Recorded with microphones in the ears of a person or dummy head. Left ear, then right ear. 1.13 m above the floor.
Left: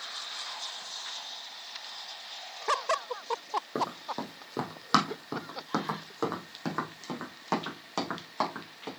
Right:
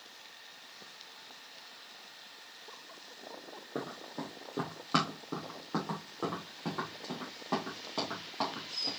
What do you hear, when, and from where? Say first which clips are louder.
3.8 s running footsteps: left 8 dB; 55° left (ahead or behind), 2 m; by 8.9 s 70° left (ahead or behind), 4.5 m